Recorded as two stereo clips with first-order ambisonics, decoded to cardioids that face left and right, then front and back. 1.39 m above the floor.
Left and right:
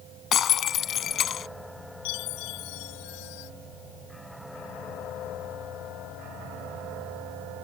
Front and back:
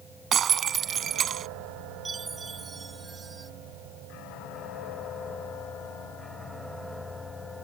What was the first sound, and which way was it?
Breaking glass, 135° left.